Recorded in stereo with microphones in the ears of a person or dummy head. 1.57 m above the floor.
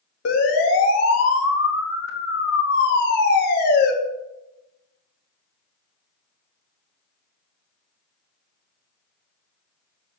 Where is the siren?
70° left (ahead or behind), 4 m; by 3.9 s 60° left (ahead or behind), 4.5 m.